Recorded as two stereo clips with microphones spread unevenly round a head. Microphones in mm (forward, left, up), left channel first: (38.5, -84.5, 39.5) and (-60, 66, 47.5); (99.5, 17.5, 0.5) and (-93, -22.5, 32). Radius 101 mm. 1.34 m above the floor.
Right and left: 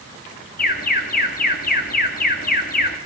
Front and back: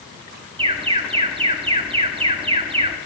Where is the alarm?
105° right, 2 m.